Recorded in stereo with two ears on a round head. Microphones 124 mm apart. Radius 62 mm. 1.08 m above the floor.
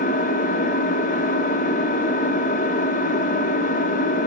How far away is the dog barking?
I don't hear a dog barking.